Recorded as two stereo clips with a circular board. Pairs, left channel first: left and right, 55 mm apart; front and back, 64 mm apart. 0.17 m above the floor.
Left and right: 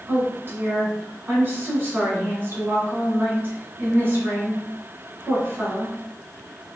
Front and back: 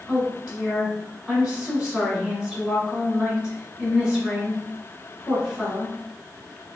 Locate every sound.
0.1 s a woman speaking: 110° right, 1.4 m